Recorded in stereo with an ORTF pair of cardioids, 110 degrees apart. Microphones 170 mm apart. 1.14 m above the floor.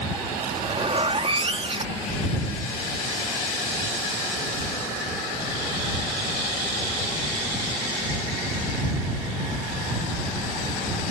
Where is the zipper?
35° right.